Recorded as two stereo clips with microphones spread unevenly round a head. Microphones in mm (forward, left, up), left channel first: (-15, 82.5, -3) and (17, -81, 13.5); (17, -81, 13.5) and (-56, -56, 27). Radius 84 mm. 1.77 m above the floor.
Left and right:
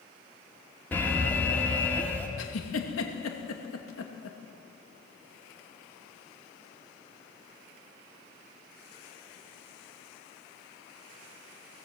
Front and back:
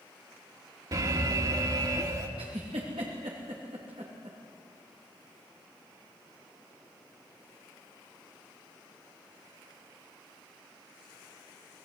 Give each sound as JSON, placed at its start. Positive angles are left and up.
{"t": 0.9, "sound": "an alarm", "azimuth_deg": -175, "distance_m": 2.5}
{"t": 2.4, "sound": "a giggle", "azimuth_deg": 110, "distance_m": 2.5}